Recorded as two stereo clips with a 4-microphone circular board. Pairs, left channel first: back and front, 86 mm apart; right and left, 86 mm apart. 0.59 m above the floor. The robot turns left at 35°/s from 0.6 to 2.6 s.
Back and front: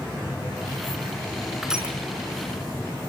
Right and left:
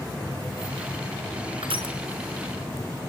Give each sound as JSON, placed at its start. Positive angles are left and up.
{"t": 1.6, "sound": "crushing", "azimuth_deg": 85, "distance_m": 5.0}